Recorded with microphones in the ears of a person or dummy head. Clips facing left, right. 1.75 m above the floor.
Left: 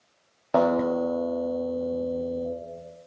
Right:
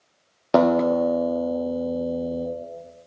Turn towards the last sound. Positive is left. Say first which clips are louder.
# right 4 dB
turn(degrees=-35)  # may be behind; listen again after turning